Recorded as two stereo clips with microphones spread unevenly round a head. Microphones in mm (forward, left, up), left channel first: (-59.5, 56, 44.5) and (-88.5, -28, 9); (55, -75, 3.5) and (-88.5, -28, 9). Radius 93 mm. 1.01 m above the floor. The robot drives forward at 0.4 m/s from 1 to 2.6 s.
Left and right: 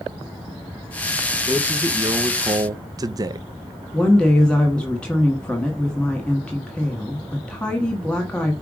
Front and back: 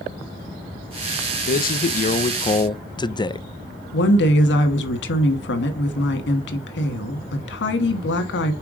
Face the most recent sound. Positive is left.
turn(degrees=-15)